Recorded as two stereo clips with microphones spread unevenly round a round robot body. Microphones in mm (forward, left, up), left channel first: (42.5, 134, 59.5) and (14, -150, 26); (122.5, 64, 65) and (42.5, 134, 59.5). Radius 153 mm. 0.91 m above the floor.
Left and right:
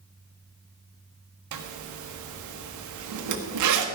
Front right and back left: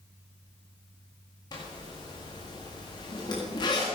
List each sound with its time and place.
1.5 s a zipper: 100° right, 1.5 m